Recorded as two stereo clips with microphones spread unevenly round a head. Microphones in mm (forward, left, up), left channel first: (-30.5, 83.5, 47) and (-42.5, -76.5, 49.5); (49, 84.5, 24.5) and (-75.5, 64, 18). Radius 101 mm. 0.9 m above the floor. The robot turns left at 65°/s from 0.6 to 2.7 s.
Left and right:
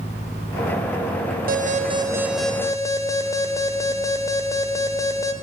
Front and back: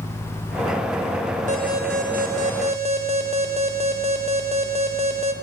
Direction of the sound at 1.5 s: 125° right.